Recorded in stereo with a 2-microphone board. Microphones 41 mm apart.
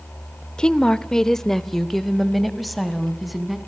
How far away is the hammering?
I don't hear hammering.